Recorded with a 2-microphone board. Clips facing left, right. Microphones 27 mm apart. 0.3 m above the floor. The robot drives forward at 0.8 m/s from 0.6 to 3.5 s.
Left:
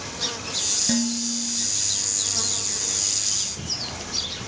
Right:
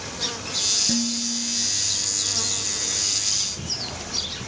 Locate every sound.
0.9 s dishes clattering: 35° left (ahead or behind), 1.3 m; by 1.7 s 25° left (ahead or behind), 1.8 m